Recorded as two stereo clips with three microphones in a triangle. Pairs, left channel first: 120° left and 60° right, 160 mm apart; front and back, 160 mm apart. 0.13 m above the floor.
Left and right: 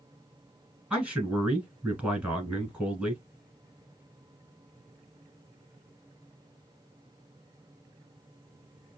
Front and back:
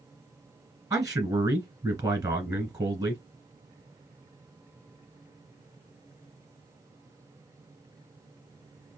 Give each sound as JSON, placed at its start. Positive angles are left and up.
{"t": 0.9, "sound": "a man speaking", "azimuth_deg": -135, "distance_m": 1.6}